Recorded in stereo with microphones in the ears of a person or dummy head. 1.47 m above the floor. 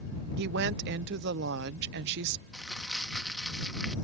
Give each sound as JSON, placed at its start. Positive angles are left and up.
{"t": 0.4, "sound": "a woman speaking", "side_deg": -60}
{"t": 2.5, "sound": "crumpling", "side_deg": 0}